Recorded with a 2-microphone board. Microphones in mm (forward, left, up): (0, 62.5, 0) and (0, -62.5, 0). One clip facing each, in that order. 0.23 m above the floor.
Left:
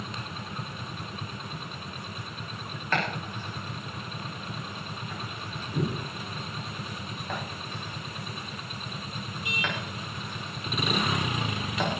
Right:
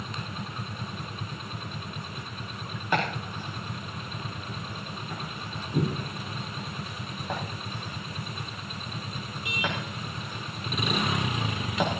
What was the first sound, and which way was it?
Chopping, 15° right (ahead or behind).